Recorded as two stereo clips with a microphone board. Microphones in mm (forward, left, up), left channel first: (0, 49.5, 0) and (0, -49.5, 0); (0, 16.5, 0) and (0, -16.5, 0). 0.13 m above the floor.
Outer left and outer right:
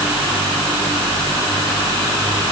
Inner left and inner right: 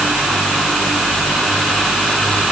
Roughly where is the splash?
No splash in this recording.